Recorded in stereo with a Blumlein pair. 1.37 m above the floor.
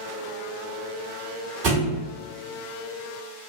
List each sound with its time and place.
1.6 s a thud: 40° right, 2.0 m